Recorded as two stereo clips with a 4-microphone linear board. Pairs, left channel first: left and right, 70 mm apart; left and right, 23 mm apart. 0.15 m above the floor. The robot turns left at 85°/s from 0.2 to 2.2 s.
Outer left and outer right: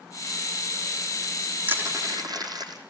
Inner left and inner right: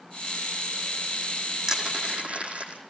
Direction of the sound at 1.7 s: 25° right (ahead or behind).